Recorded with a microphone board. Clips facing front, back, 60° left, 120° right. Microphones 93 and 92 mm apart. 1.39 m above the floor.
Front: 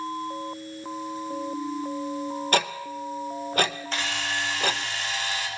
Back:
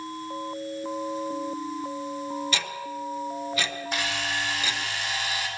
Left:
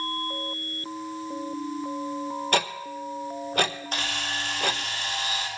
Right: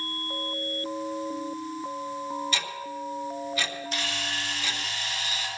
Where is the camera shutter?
105° left, 4.5 m.